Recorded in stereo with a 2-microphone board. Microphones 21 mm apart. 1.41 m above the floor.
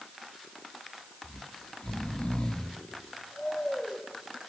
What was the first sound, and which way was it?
Snoring, 40° left (ahead or behind).